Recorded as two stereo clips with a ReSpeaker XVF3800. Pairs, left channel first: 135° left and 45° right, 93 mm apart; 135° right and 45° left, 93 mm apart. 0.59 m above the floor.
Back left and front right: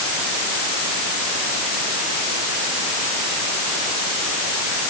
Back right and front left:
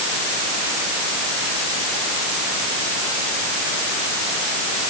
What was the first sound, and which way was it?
Only background noise.